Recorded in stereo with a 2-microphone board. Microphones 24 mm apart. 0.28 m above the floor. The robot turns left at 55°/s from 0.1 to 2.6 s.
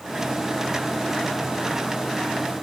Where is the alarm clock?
I don't hear an alarm clock.